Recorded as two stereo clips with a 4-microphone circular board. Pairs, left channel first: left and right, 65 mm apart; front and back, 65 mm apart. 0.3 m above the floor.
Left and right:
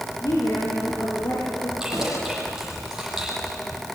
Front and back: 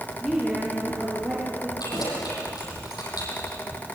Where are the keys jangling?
10° right, 9 m.